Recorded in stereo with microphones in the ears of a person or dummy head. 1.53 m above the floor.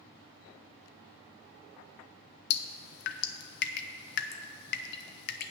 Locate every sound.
2.5 s dripping: 60° left (ahead or behind), 0.6 m